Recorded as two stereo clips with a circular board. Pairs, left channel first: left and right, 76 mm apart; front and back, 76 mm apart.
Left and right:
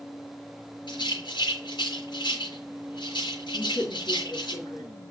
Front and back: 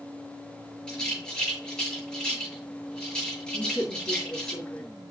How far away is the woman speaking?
About 4.5 m.